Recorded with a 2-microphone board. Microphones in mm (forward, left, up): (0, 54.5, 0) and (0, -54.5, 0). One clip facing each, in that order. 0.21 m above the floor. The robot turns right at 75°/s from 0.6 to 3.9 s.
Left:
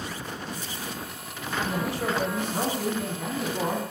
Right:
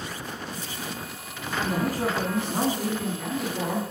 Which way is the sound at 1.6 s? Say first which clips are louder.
Right 3 dB; 110° right.